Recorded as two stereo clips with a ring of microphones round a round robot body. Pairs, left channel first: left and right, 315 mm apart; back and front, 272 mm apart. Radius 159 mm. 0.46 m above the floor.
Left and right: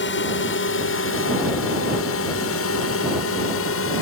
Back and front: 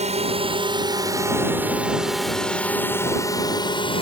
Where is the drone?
55° left; by 4.0 s 115° left.